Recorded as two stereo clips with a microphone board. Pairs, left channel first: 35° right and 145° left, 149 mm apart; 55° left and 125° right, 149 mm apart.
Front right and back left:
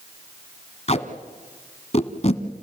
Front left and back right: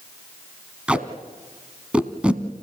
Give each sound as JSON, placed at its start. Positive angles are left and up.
{"t": 0.9, "sound": "tape being pulled", "azimuth_deg": -45, "distance_m": 1.1}